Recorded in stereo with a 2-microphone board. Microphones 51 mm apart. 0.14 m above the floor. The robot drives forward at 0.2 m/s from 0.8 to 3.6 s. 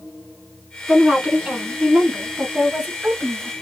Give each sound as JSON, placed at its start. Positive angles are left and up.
{"t": 0.9, "sound": "a woman speaking", "side_deg": -20, "distance_m": 1.2}